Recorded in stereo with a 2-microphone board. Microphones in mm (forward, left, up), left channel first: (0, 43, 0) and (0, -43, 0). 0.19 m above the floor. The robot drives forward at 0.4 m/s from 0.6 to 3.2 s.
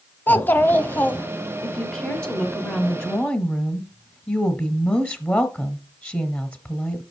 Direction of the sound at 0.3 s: 25° left (ahead or behind).